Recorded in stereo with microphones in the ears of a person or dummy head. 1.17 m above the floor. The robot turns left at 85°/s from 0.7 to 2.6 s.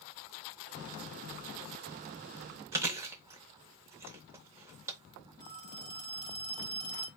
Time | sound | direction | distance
2.7 | chewing | 15° right (ahead or behind) | 0.7 m
5.4 | a phone ringing | 20° left (ahead or behind) | 2.0 m